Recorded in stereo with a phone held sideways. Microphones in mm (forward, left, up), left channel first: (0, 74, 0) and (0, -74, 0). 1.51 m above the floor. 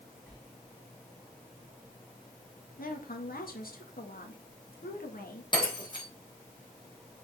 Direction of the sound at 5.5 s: 30° left (ahead or behind).